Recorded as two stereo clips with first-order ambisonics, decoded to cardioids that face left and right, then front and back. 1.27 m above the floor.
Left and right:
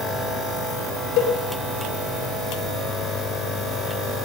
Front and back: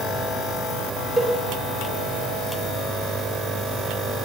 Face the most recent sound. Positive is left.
turn(degrees=95)